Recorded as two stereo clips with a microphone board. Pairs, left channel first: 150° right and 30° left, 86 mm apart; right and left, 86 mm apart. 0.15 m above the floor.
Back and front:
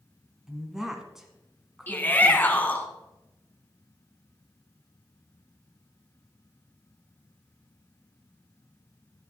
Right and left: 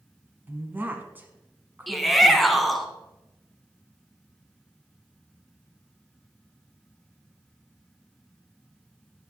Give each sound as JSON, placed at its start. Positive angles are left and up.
{"t": 0.5, "sound": "a woman speaking", "azimuth_deg": 110, "distance_m": 1.4}
{"t": 1.9, "sound": "a shout", "azimuth_deg": -175, "distance_m": 1.2}